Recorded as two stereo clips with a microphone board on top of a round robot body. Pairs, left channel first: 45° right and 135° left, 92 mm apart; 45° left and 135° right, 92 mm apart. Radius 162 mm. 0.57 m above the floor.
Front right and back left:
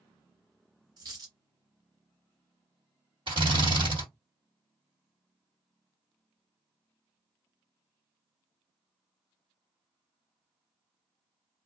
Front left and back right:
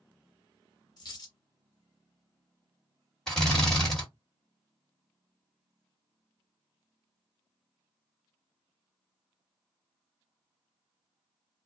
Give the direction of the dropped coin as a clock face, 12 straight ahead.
9 o'clock.